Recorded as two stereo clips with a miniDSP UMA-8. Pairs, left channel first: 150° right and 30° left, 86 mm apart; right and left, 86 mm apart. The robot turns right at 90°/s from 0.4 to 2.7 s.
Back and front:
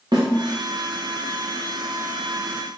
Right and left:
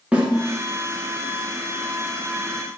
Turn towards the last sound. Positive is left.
turn(degrees=-140)